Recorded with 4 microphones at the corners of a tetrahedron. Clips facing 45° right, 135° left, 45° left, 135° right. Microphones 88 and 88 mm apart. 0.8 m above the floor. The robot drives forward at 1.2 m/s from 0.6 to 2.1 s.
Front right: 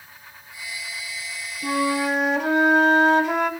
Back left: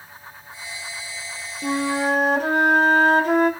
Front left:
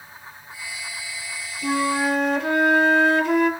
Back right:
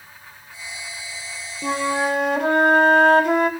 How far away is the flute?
About 3 m.